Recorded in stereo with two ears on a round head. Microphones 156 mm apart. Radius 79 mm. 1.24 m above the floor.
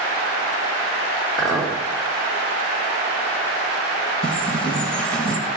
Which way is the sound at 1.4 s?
Centre (ahead or behind).